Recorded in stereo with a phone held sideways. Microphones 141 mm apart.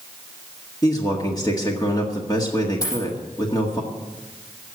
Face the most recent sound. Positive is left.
turn(degrees=25)  # may be behind; listen again after turning